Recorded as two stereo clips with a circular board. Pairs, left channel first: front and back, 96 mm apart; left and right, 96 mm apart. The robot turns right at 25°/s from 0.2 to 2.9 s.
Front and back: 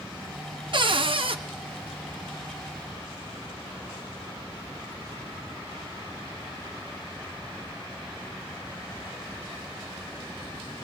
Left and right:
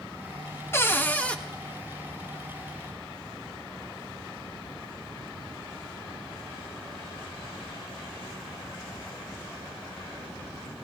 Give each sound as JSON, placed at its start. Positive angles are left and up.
{"t": 0.7, "sound": "a cupboard door", "azimuth_deg": 155, "distance_m": 0.6}